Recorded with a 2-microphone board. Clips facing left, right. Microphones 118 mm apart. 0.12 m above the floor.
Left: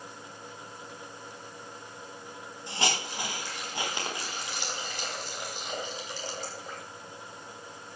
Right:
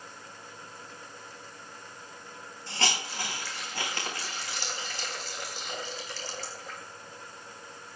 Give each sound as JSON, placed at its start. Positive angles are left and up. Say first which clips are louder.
{"t": 2.7, "sound": "a hiss", "louder": "left 1 dB", "side_deg": 15, "distance_m": 7.0}